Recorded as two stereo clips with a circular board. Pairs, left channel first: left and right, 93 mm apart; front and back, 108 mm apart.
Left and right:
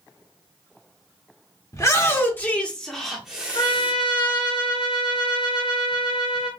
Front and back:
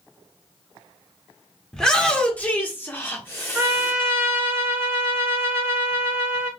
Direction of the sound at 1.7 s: 80° left.